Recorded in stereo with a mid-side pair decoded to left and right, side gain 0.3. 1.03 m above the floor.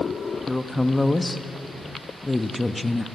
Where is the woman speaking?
25° left, 1.4 m.